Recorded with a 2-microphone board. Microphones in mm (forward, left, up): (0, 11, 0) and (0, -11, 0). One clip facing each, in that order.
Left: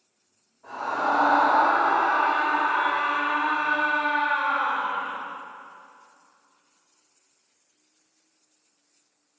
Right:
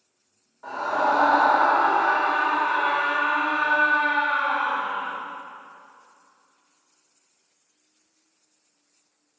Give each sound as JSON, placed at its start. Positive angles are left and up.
{"t": 0.6, "sound": "a scream", "side_deg": -70, "distance_m": 3.5}